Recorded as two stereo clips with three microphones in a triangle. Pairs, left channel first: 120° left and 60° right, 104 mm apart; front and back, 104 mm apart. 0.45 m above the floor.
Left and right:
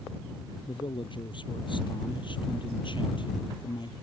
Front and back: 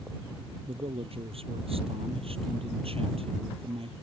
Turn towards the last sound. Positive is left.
turn(degrees=160)